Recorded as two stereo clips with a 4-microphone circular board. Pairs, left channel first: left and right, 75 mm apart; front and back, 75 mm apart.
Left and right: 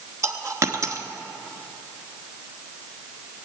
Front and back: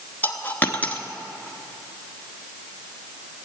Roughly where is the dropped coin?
Ahead right.